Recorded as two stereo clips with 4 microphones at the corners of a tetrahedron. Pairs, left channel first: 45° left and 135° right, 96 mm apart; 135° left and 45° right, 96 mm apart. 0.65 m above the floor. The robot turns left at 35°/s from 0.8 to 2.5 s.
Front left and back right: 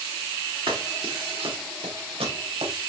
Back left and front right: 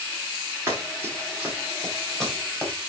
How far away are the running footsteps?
About 4.5 m.